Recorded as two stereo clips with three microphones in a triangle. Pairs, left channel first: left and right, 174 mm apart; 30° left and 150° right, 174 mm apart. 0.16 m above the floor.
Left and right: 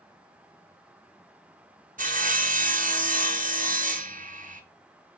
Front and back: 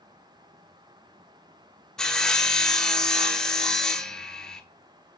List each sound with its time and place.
2.0 s sawing: 55° right, 1.0 m